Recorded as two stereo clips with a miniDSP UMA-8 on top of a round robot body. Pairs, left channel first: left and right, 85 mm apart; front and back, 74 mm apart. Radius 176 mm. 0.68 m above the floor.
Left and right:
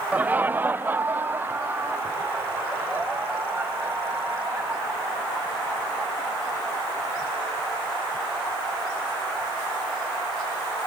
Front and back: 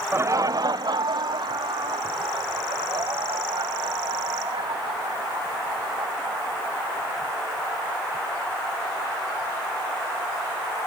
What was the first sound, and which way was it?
Laughter, 150° right.